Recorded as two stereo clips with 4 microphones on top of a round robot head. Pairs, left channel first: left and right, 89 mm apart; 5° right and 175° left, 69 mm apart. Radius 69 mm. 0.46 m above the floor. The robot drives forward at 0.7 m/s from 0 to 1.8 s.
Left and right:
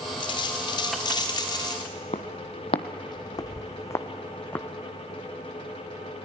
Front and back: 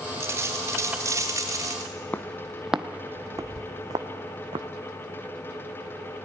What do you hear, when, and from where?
0.2 s a dropped coin: 115° left, 3.5 m; by 1.9 s 130° left, 4 m
2.1 s footsteps: 55° left, 0.8 m; by 4.7 s 160° left, 1.5 m